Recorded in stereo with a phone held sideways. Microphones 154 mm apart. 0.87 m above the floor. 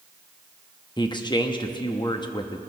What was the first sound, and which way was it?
A man speaking, 30° left (ahead or behind).